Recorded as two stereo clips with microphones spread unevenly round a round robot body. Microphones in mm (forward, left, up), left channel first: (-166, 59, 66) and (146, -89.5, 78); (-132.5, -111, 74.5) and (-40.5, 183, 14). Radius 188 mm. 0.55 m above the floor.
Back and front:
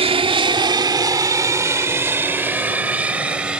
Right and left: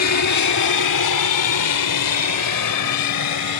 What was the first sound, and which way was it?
An aircraft, 95° right.